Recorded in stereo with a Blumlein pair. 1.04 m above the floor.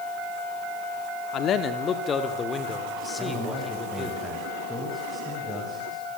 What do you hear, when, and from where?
1.3 s a man speaking: 30° left, 2.5 m; by 4.2 s 5° left, 4.5 m
3.2 s a man speaking: 5° left, 5.5 m